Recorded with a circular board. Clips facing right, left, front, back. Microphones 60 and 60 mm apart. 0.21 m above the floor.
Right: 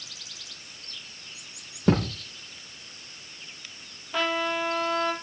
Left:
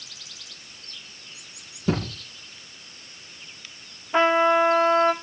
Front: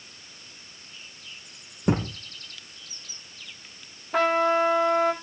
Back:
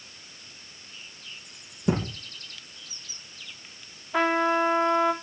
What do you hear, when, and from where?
1.9 s a thud: 50° right, 4 m
4.1 s a trumpet: 30° left, 1.8 m